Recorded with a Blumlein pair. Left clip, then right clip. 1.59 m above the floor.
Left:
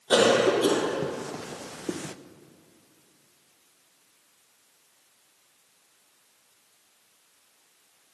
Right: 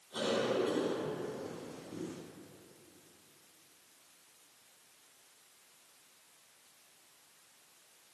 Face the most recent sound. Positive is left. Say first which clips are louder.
# left 13 dB
turn(degrees=45)